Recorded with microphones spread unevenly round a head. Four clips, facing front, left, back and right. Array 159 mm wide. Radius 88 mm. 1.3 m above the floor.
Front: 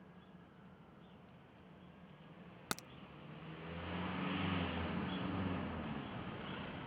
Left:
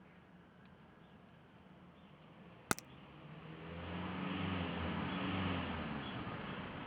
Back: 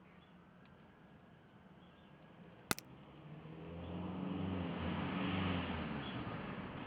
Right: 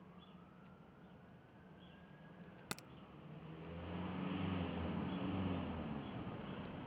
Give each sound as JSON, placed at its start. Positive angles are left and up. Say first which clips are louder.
{"t": 2.7, "sound": "a crack", "louder": "left 11 dB, back 3 dB", "azimuth_deg": 115}